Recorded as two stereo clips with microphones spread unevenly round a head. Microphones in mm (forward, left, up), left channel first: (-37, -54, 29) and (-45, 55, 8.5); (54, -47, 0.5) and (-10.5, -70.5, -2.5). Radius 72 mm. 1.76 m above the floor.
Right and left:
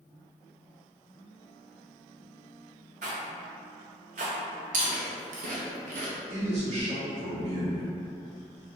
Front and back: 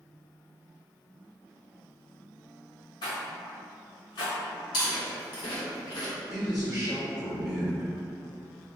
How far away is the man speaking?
About 1.4 m.